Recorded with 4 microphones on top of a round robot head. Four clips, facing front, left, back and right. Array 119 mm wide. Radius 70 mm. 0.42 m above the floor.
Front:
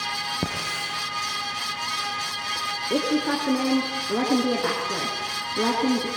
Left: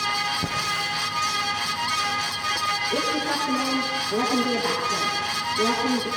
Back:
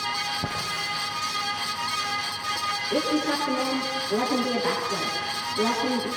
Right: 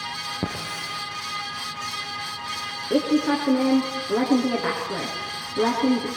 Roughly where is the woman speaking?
Ahead right.